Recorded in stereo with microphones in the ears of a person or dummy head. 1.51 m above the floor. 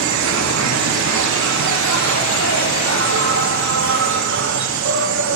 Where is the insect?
70° right (ahead or behind), 0.9 m.